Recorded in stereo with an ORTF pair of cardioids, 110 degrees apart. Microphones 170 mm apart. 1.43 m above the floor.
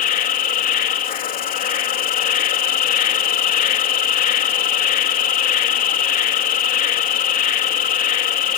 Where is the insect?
55° left.